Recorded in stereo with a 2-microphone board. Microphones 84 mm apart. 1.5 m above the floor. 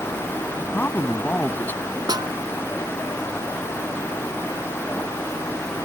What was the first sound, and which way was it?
A man speaking, 20° left (ahead or behind).